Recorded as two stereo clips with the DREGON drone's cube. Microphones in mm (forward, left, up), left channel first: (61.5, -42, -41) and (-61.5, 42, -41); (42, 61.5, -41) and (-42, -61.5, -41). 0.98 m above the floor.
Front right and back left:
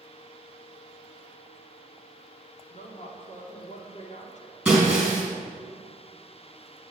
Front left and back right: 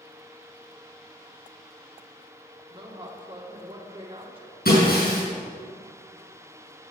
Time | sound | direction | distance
2.7 | a woman speaking | 70° right | 2 m
4.7 | breaking glass | 60° left | 5 m